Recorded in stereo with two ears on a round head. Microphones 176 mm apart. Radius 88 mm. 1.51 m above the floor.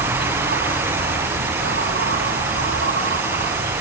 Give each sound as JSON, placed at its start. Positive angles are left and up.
{"t": 0.0, "sound": "an insect", "side_deg": -60}